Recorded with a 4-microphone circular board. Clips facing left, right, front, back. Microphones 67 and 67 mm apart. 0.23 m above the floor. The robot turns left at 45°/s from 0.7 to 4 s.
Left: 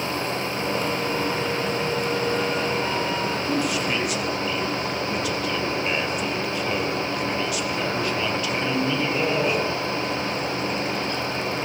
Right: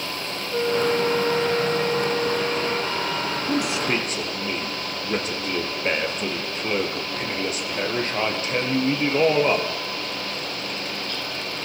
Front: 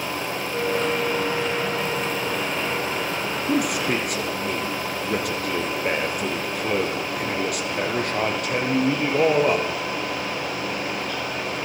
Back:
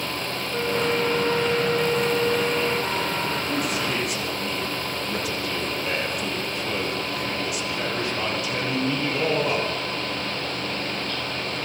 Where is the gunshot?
No gunshot in this recording.